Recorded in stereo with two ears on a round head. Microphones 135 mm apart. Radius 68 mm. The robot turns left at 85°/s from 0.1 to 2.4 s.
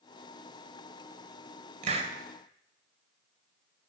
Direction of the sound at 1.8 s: 50° right (ahead or behind).